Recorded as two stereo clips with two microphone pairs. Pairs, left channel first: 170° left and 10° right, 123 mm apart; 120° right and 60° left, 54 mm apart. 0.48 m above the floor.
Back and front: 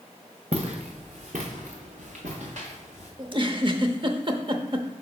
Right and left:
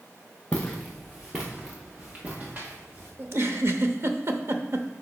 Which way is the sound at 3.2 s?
30° left.